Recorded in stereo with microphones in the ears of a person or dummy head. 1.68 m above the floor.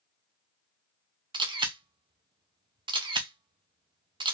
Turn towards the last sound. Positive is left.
turn(degrees=-20)  # may be behind; listen again after turning